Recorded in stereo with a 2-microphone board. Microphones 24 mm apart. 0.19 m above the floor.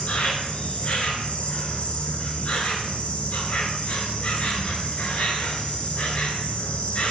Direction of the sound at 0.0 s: 70° left (ahead or behind).